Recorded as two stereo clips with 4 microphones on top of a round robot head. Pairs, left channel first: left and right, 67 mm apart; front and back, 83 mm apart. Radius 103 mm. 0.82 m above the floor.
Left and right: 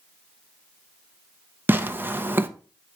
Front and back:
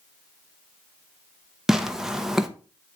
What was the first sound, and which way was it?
Tearing paper, 100° right.